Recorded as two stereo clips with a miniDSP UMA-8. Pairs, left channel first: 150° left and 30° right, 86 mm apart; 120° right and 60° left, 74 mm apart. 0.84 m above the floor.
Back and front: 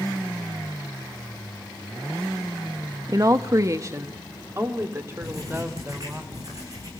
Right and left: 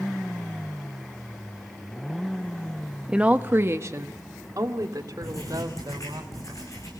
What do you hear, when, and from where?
3.1 s a woman speaking: 15° right, 0.9 m; by 6.2 s 30° left, 4 m
5.2 s writing: 80° right, 9.5 m